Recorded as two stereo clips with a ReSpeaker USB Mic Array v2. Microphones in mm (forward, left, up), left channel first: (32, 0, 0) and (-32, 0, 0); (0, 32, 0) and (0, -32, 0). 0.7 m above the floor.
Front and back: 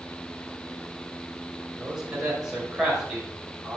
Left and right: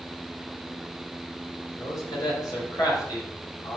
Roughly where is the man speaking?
Left.